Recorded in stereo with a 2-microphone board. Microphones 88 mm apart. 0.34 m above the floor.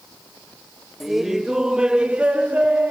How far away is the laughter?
About 1.1 m.